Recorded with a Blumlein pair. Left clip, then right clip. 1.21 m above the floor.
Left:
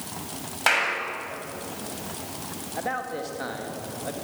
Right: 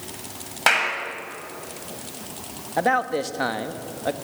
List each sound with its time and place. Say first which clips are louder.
0.7 s a clap: right 3 dB; 10° right, 6.5 m
2.8 s a man speaking: right 9 dB; 25° right, 2.0 m